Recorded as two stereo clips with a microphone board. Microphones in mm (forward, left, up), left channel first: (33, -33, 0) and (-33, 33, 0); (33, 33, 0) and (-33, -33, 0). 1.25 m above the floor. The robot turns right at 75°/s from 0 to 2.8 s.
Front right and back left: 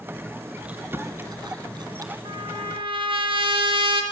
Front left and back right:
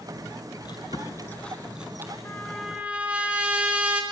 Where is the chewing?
60° left, 2 m; by 2.1 s 170° left, 2 m.